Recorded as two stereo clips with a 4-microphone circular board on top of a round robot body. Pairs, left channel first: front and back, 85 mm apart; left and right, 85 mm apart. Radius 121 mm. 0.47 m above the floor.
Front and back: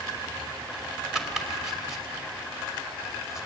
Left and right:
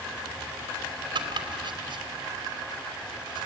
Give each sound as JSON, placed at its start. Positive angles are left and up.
{"t": 1.1, "sound": "chopping", "azimuth_deg": -95, "distance_m": 3.0}